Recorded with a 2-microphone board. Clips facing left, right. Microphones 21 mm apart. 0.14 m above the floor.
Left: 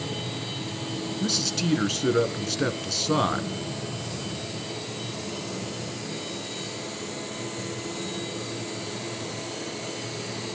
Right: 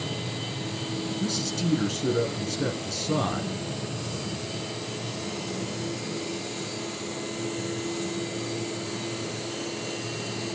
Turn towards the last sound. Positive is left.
turn(degrees=35)  # may be behind; listen again after turning